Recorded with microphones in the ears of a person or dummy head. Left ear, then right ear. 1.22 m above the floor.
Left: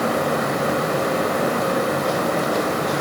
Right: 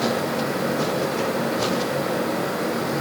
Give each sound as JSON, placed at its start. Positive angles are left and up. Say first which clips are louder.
{"t": 0.0, "sound": "a fan", "louder": "left 3 dB", "side_deg": 35, "distance_m": 3.0}